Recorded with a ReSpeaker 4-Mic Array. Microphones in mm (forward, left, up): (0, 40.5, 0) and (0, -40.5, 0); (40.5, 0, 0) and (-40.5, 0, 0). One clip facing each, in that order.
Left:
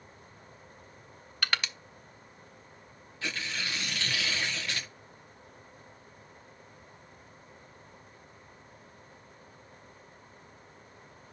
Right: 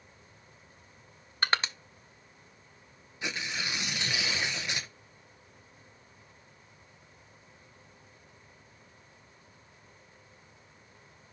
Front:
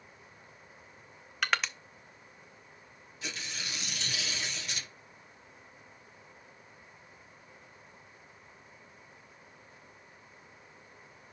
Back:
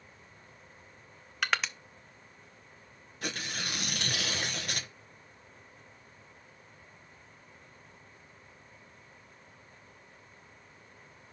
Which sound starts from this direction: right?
Crushing, at 1.4 s.